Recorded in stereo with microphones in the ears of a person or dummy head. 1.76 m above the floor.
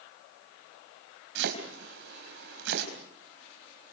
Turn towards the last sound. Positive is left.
turn(degrees=-70)  # may be behind; listen again after turning